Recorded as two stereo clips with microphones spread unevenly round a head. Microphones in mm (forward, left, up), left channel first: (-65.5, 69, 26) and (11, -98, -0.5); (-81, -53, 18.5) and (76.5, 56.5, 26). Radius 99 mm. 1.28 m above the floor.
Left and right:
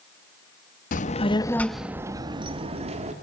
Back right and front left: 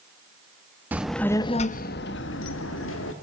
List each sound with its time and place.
0.9 s a child speaking: 110° left, 0.8 m; by 3.1 s 120° right, 1.5 m